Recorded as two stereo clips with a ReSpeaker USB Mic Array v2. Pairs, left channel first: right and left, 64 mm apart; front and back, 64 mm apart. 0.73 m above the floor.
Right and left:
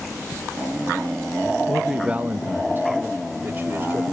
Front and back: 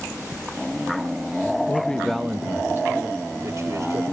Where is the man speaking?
5° right, 0.6 m; by 4.0 s 140° left, 2.0 m.